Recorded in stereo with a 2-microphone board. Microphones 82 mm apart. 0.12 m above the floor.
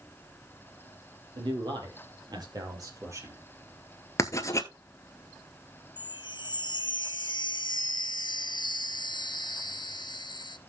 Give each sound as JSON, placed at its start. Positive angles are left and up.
{"t": 1.4, "sound": "a man speaking", "side_deg": -70, "distance_m": 3.5}
{"t": 4.2, "sound": "writing", "side_deg": 40, "distance_m": 0.9}
{"t": 6.0, "sound": "a chime", "side_deg": 65, "distance_m": 0.5}